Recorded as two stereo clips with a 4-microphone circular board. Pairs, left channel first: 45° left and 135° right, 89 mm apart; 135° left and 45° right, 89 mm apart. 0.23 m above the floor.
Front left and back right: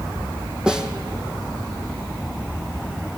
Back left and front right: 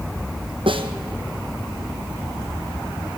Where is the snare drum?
55° right, 1.7 m.